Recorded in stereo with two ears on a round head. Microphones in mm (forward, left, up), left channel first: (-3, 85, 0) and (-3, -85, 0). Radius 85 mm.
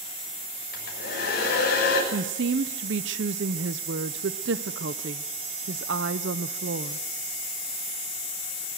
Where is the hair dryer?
55° left (ahead or behind), 7 m.